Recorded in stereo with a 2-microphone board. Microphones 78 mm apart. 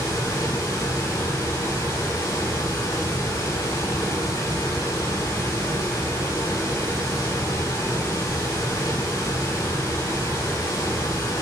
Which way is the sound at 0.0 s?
70° left (ahead or behind).